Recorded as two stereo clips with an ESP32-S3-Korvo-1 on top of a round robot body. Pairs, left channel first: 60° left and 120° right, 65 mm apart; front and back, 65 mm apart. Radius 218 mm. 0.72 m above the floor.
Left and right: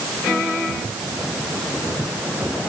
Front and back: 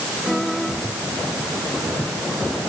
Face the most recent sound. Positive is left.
No sound to turn to.